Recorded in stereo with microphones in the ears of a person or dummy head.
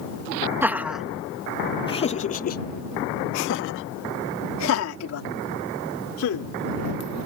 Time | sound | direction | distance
0.6 | laughter | 10° right (ahead or behind) | ?